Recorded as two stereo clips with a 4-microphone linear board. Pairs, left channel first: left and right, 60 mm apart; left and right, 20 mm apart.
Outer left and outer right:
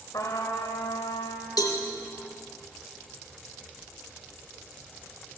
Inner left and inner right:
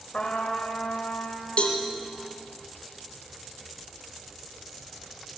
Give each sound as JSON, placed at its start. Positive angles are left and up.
{"t": 0.1, "sound": "a trumpet", "side_deg": 65, "distance_m": 3.0}
{"t": 1.6, "sound": "a cowbell", "side_deg": 85, "distance_m": 2.5}